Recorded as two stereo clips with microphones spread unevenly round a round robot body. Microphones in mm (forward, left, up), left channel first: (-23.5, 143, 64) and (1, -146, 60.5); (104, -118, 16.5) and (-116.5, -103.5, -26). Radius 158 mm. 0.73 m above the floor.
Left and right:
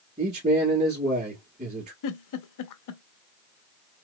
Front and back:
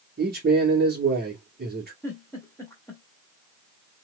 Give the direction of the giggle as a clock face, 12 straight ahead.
9 o'clock.